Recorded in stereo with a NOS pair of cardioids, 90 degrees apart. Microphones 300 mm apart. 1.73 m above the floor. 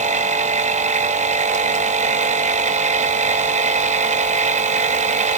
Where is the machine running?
25° right, 0.8 m.